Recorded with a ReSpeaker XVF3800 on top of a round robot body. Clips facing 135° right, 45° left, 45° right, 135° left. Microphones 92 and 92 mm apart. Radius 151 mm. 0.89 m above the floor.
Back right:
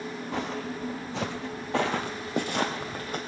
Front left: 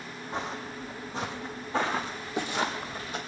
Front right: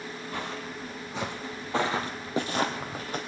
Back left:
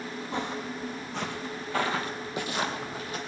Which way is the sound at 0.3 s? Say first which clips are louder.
Back right 2 dB, back left 4 dB; 160° right.